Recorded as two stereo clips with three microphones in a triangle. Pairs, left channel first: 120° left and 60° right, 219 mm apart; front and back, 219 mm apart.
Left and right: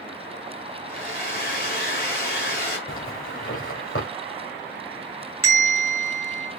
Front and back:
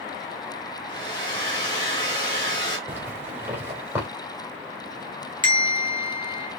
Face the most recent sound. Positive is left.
turn(degrees=110)